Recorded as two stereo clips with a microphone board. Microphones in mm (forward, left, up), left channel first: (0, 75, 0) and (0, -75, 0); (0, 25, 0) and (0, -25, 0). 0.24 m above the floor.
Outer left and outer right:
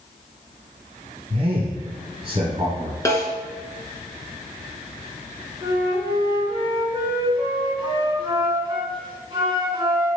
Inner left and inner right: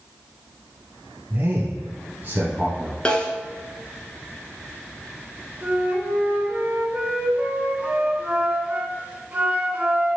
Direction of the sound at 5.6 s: 30° right (ahead or behind).